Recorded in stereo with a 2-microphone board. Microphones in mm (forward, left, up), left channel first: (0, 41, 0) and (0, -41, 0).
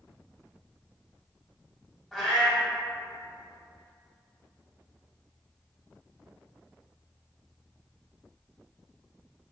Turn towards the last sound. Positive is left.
turn(degrees=5)  # may be behind; listen again after turning